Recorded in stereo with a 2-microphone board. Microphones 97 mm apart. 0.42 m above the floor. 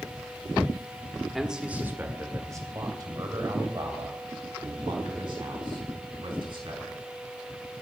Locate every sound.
1.3 s a man speaking: centre (ahead or behind), 1.3 m; by 7.0 s 65° right (ahead or behind), 5.5 m